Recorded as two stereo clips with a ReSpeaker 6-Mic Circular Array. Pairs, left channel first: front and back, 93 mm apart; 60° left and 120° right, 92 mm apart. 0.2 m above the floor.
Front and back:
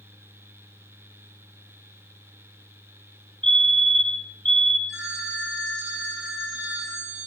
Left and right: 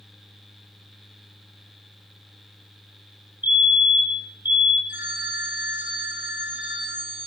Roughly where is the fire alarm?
Behind.